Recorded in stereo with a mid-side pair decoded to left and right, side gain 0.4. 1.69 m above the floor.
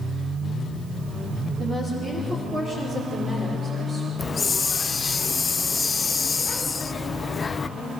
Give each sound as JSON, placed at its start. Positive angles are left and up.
{"t": 1.6, "sound": "a woman speaking", "azimuth_deg": -55, "distance_m": 4.5}
{"t": 4.2, "sound": "a hiss", "azimuth_deg": 35, "distance_m": 0.5}